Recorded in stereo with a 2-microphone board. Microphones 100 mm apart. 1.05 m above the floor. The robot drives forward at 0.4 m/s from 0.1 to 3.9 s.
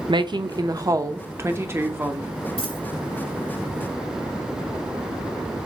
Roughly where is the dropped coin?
Left.